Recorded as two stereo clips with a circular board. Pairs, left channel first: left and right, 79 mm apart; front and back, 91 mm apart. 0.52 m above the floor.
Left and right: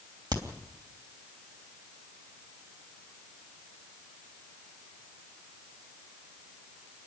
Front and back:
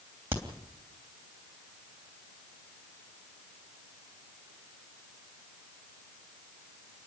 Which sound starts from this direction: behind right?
A crack, at 0.3 s.